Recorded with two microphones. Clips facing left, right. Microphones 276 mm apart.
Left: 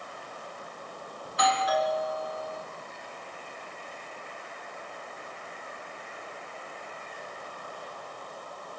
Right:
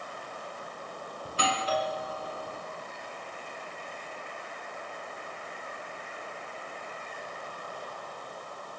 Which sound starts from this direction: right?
A doorbell, at 1.2 s.